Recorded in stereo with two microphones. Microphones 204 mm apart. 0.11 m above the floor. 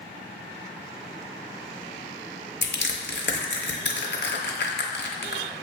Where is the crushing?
60° left (ahead or behind), 0.7 m.